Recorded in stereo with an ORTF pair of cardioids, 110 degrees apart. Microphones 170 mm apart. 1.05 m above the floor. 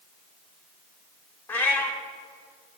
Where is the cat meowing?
10° left, 1.2 m.